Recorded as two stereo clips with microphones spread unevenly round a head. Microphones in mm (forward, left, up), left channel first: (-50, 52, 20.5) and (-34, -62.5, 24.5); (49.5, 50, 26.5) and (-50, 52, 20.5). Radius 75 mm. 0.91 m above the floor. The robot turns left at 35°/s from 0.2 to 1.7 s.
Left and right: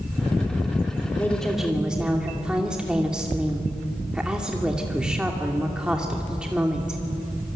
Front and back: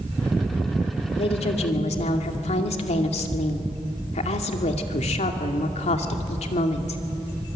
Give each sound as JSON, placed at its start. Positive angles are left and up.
{"t": 1.2, "sound": "a woman speaking", "azimuth_deg": 20, "distance_m": 2.5}